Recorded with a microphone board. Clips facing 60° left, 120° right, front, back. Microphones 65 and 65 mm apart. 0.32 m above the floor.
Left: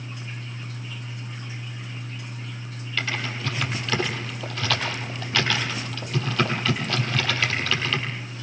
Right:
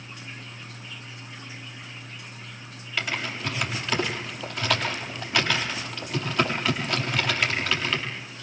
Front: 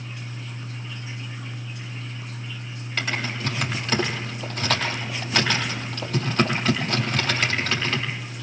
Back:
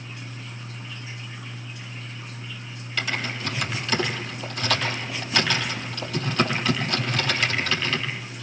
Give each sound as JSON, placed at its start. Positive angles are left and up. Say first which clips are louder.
{"t": 3.0, "sound": "typing on a keyboard", "louder": "left 1 dB, front 1 dB", "azimuth_deg": -45, "distance_m": 9.0}